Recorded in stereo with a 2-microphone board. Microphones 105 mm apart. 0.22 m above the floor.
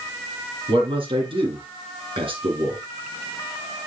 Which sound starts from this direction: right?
A man speaking, at 0.7 s.